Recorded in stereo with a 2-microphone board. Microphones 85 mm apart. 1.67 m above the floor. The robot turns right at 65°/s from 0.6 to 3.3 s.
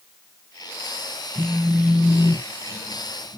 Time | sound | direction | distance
1.4 | a phone buzzing | 5° right | 0.9 m